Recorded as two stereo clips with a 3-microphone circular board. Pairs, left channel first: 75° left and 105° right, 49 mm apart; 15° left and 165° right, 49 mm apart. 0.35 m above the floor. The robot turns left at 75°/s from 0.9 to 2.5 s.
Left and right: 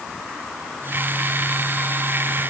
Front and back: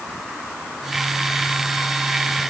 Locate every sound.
Only background noise.